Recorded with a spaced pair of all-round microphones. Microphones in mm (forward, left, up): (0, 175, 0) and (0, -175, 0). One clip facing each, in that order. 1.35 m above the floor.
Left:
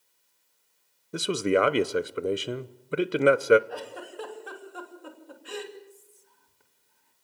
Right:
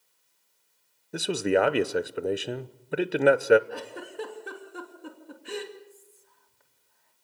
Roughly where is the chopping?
No chopping in this recording.